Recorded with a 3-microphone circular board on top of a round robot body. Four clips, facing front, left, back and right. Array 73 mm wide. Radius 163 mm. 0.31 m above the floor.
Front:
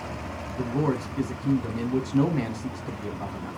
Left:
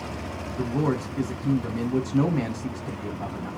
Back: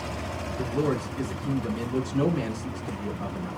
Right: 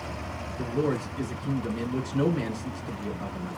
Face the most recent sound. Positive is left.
turn(degrees=50)